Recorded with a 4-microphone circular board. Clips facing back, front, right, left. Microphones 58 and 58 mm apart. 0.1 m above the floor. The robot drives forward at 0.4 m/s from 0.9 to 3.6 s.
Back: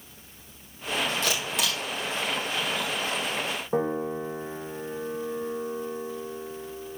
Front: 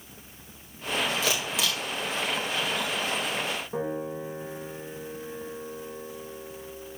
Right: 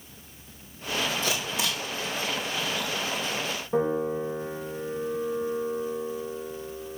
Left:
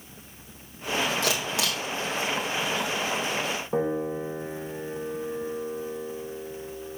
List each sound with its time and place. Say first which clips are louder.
1.2 s a camera shutter: even, left 2 dB; 85° left, 3 m; by 1.8 s 90° left, 3 m
3.7 s a piano: back 8 dB, right 2 dB; 150° left, 1.9 m